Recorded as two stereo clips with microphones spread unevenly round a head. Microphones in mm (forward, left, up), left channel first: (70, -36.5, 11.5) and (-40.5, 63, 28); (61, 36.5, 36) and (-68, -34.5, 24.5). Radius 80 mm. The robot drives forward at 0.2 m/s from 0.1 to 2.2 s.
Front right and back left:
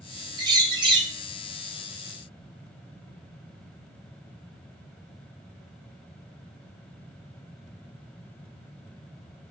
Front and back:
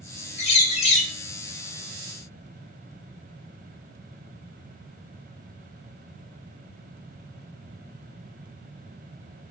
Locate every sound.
0.4 s a bird: 75° left, 1.1 m; by 1.1 s 80° left, 1.0 m